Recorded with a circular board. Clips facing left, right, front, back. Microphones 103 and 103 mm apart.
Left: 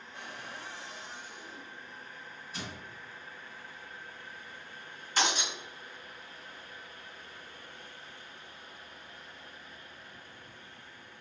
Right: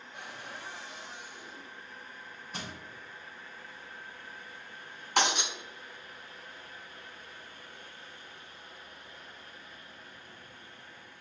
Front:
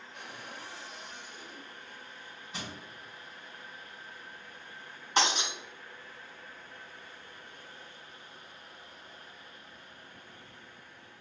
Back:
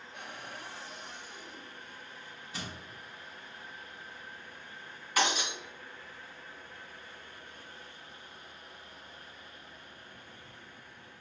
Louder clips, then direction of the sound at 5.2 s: Right 2 dB, front 1 dB; 65° right.